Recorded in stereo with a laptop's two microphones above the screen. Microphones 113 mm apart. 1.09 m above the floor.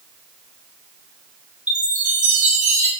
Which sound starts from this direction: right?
A chime, at 1.7 s.